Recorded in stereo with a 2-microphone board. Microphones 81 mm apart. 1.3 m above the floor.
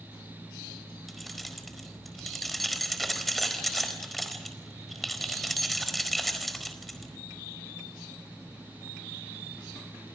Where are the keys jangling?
Centre (ahead or behind), 4.5 m.